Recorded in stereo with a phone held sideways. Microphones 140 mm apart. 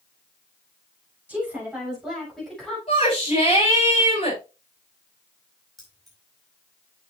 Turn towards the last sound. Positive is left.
turn(degrees=0)  # may be behind; listen again after turning